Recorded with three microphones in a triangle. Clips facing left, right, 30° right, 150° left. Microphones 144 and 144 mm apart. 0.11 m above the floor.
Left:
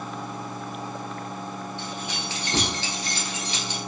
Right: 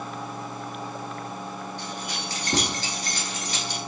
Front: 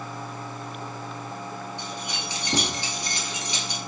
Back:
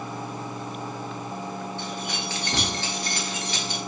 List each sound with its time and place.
1.8 s keys jangling: 95° right, 1.4 m